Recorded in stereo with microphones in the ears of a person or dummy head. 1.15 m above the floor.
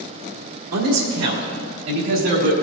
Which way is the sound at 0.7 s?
85° right.